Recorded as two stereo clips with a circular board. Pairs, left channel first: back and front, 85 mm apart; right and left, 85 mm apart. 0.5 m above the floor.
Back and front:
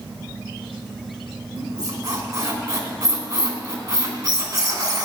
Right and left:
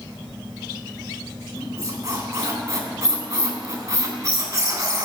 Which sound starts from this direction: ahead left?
A squeak, at 1.6 s.